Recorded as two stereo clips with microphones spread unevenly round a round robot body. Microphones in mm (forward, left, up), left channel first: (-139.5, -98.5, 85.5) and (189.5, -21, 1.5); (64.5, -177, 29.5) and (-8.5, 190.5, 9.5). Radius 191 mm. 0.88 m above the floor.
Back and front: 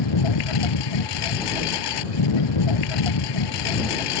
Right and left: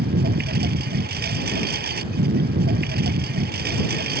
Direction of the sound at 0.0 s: 170° left.